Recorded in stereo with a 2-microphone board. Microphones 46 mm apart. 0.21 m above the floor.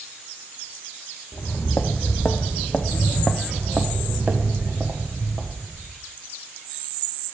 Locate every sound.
1.3 s footsteps: 55° left (ahead or behind), 1.1 m; by 5.9 s 55° right (ahead or behind), 1.8 m